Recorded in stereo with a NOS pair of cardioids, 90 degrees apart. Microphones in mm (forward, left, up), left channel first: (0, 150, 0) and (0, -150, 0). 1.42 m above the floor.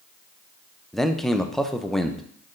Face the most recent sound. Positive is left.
turn(degrees=0)